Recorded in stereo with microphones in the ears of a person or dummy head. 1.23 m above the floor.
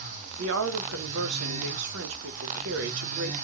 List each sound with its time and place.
0.4 s a woman speaking: 80° right, 0.7 m